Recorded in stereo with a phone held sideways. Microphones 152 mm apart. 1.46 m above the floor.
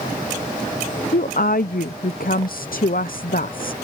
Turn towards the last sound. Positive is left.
turn(degrees=70)  # may be behind; listen again after turning